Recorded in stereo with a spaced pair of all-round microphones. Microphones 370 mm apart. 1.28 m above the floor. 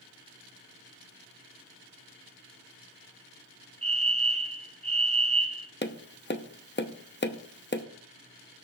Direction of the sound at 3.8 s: 15° right (ahead or behind).